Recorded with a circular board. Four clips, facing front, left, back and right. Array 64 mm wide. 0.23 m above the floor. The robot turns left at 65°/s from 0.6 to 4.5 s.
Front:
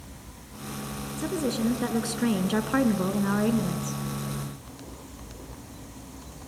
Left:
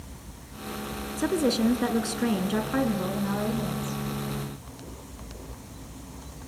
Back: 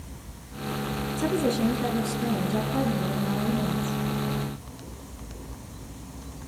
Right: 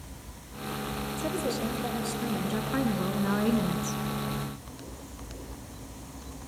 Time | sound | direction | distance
1.2 | a woman speaking | 110° left | 2 m